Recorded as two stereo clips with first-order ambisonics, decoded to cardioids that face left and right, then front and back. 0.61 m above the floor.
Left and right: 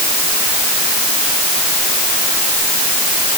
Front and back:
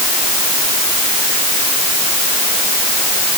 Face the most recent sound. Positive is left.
No sound to turn to.